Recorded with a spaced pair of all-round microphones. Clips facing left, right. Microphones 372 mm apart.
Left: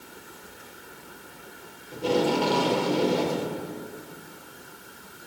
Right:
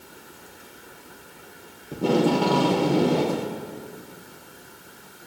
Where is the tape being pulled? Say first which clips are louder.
Right 3 dB; 65° right (ahead or behind), 1.6 m.